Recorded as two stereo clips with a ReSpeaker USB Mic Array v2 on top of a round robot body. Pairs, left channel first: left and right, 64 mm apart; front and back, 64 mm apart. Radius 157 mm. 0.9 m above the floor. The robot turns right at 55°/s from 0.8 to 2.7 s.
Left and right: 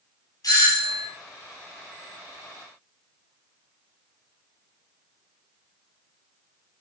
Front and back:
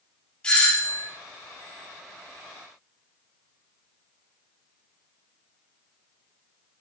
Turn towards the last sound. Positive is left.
turn(degrees=180)